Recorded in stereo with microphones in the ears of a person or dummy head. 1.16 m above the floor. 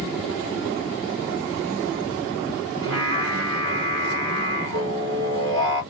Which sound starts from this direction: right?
Singing, at 2.8 s.